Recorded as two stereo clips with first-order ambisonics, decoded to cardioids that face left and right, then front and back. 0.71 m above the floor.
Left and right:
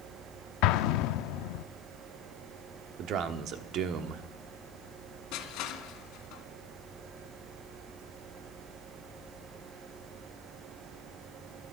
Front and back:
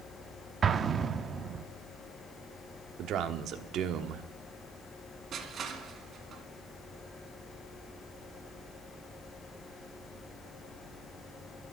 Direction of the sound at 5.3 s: 120° left.